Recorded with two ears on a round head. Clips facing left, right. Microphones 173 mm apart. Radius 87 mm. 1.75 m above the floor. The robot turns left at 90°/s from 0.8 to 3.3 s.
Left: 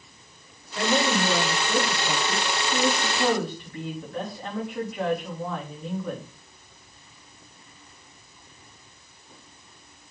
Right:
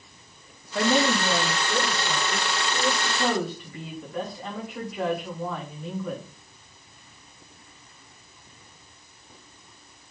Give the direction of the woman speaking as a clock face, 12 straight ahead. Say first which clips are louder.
Right 1 dB; 5 o'clock.